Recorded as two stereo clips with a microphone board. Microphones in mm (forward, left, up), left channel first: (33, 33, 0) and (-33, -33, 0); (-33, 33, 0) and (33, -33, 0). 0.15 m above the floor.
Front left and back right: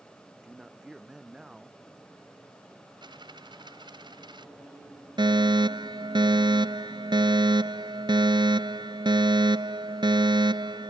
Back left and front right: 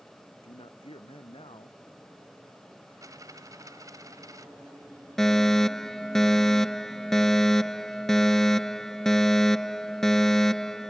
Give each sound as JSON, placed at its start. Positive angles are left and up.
{"t": 0.3, "sound": "a man speaking", "azimuth_deg": 145}
{"t": 3.0, "sound": "a dropped coin", "azimuth_deg": -100}
{"t": 5.2, "sound": "a fire alarm", "azimuth_deg": -140}